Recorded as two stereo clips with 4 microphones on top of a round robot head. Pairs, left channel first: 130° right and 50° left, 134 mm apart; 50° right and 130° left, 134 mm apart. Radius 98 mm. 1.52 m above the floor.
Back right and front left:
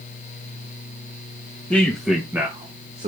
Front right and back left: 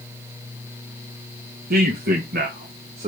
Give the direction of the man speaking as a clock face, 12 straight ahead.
7 o'clock.